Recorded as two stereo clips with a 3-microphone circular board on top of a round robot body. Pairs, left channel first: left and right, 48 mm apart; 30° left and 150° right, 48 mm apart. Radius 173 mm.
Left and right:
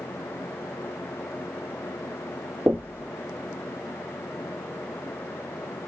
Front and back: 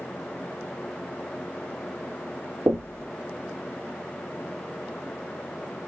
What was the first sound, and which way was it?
Knocking, 135° right.